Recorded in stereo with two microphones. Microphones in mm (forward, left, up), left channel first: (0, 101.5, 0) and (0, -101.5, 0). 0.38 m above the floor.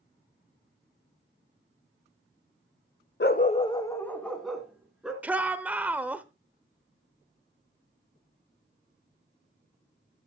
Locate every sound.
3.2 s a dog barking: 55° left (ahead or behind), 0.5 m; by 5.1 s 5° right (ahead or behind), 2 m
5.2 s a shout: 5° right (ahead or behind), 0.9 m